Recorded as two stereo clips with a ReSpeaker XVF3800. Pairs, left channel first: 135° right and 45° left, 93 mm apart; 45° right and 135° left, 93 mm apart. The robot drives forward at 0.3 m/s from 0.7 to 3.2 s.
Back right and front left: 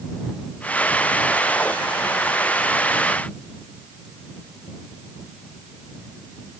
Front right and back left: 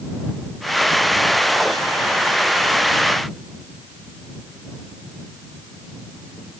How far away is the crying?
No crying in this recording.